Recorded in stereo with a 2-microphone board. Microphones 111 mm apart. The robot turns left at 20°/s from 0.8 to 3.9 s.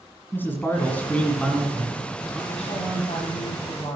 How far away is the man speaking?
About 1.9 m.